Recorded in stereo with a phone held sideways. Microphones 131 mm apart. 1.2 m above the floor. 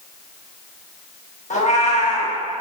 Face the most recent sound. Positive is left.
turn(degrees=70)  # may be behind; listen again after turning